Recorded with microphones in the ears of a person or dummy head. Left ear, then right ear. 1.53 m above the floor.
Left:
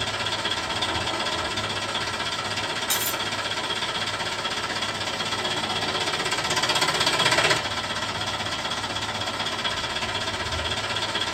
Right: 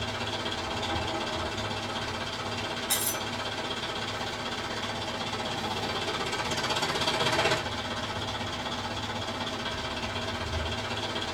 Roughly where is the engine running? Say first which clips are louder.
Left 6 dB; left.